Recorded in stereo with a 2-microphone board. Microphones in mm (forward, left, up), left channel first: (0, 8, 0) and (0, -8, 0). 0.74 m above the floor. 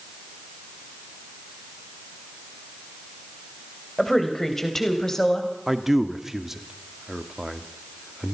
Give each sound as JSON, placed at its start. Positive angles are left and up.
{"t": 4.0, "sound": "a woman speaking", "side_deg": 15, "distance_m": 3.5}
{"t": 5.7, "sound": "a man speaking", "side_deg": -15, "distance_m": 1.5}